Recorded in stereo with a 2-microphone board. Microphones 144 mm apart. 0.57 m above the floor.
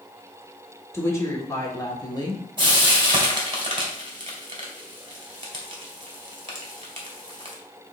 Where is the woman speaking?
20° left (ahead or behind), 1.8 m; by 2.4 s 30° left (ahead or behind), 1.3 m.